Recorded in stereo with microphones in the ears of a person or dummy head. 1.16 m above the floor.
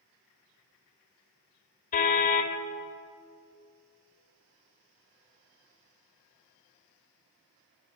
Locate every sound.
1.9 s a car horn: 45° left (ahead or behind), 2.5 m